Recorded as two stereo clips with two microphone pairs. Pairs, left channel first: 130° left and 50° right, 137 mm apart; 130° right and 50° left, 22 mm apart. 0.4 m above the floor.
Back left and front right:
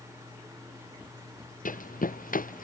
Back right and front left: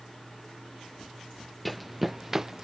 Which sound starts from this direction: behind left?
Running footsteps, at 1.6 s.